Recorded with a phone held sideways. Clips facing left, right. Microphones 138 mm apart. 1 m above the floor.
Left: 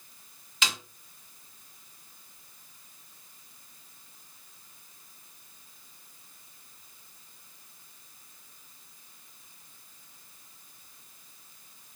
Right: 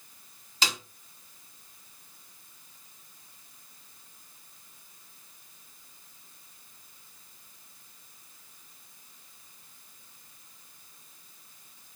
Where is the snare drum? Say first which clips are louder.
Right 1 dB; 35° right (ahead or behind), 0.7 m.